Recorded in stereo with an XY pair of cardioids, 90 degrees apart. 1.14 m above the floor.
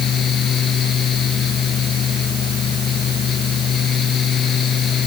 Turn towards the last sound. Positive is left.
turn(degrees=60)